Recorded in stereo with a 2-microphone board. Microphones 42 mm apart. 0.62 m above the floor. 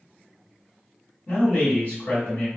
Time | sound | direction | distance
1.3 | a man speaking | 50° left (ahead or behind) | 1.8 m